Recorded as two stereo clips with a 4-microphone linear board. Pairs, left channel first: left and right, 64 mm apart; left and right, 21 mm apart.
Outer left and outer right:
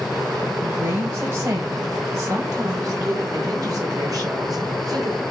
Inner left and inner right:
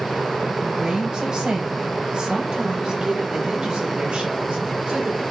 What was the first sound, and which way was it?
A woman speaking, 40° right (ahead or behind).